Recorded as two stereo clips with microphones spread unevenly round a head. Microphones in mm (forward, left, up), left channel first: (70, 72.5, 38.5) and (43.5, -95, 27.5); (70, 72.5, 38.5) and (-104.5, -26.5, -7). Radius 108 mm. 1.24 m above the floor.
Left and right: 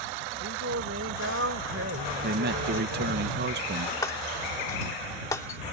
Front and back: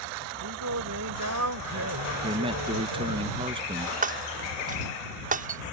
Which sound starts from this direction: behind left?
Breaking glass, at 4.0 s.